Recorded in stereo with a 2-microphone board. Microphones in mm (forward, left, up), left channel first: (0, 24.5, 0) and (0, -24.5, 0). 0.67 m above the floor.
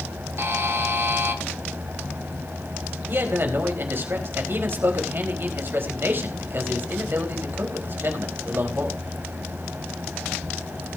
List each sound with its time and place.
0.4 s a buzzer: 55° right (ahead or behind), 2 m
3.1 s a man speaking: 50° right (ahead or behind), 4 m